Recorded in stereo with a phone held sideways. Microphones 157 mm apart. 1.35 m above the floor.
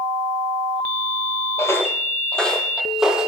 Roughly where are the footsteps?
Centre.